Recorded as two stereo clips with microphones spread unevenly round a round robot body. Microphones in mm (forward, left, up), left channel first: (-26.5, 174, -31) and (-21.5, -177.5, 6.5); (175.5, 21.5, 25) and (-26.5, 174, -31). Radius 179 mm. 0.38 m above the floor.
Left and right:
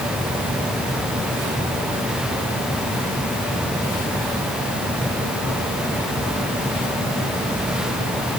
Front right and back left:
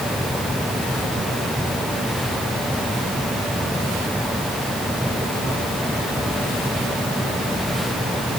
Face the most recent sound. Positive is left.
No sound to turn to.